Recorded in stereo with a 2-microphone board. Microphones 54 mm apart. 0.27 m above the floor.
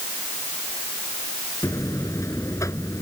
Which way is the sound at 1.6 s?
70° left (ahead or behind).